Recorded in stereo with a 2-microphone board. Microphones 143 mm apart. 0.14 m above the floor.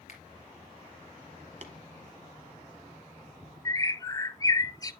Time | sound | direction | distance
0.1 | a finger snap | 60° left (ahead or behind) | 3 m
1.6 | tapping | 50° right (ahead or behind) | 1.3 m
3.6 | a bird | 25° left (ahead or behind) | 0.5 m